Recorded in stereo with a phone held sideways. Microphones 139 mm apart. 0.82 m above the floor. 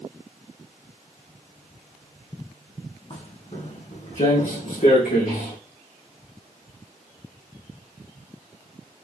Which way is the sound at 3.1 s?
50° left (ahead or behind).